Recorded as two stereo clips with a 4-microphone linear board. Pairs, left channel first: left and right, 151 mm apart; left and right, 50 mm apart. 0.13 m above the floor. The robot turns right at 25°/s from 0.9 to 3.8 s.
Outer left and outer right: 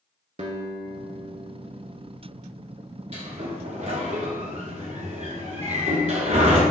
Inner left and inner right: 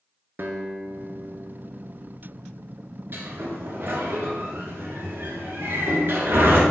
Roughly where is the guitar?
Right.